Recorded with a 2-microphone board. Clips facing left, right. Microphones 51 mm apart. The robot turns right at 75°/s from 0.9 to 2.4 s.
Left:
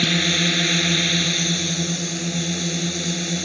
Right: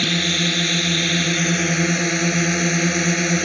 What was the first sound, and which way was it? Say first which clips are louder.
A drone: even; 175° left.